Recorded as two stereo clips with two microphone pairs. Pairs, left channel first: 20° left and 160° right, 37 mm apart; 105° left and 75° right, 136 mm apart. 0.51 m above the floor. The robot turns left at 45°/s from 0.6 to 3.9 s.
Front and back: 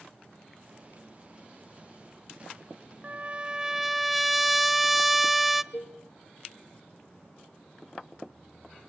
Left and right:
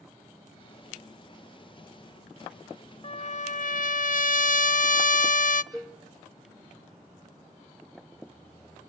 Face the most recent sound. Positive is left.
turn(degrees=15)